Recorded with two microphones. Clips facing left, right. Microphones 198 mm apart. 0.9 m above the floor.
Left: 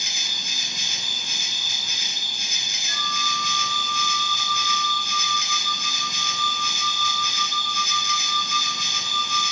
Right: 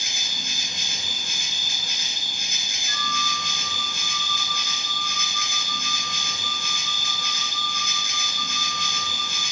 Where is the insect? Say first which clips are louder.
Right 2 dB; 50° right (ahead or behind), 0.7 m.